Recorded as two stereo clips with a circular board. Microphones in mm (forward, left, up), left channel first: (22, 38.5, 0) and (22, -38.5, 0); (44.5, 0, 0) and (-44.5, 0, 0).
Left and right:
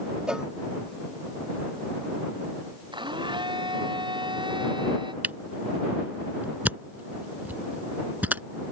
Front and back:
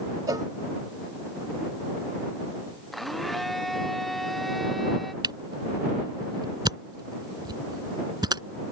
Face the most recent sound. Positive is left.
turn(degrees=-155)